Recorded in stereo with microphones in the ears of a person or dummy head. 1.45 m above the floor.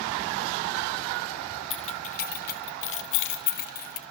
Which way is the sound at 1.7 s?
30° left (ahead or behind).